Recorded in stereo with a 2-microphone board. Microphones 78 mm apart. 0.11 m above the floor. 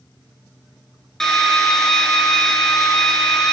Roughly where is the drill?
Centre.